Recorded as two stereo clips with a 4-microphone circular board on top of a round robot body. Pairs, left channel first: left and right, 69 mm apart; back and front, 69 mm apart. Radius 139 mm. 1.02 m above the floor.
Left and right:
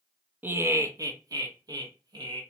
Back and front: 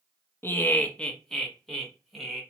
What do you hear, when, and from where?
0.4 s laughter: 140° right, 0.5 m; by 2.4 s 90° right, 1.3 m